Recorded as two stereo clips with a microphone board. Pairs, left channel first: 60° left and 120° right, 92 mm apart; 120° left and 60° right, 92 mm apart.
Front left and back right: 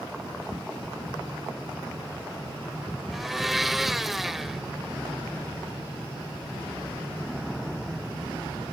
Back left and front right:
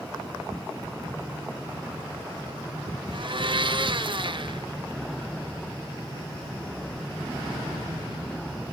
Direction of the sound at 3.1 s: 30° right.